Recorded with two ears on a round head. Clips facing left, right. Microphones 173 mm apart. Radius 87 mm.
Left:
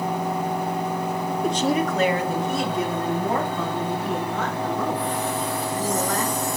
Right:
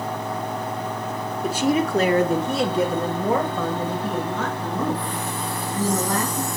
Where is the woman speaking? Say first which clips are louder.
Right 2 dB; centre (ahead or behind), 0.8 m; by 6.5 s 75° right (ahead or behind), 4.5 m.